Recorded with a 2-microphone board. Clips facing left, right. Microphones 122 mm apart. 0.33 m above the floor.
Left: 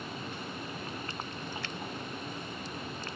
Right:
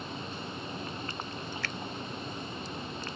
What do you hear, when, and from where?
1.6 s a finger snap: 20° left (ahead or behind)